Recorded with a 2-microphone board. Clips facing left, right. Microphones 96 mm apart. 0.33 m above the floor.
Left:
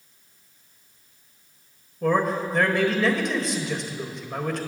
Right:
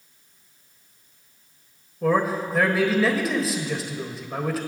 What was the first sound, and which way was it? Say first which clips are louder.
A man speaking: right 1 dB; 5° right (ahead or behind).